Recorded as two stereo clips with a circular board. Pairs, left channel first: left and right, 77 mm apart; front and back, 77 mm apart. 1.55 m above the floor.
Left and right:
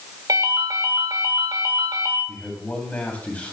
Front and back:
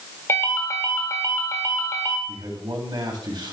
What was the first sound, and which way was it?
A ringtone, 55° right.